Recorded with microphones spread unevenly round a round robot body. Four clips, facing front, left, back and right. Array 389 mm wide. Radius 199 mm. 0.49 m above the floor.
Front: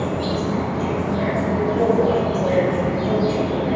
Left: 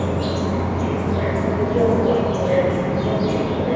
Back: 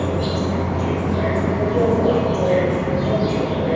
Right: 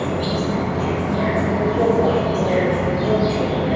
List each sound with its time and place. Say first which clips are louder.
0.0 s an insect: even, back 1 dB; 115° left, 1.1 m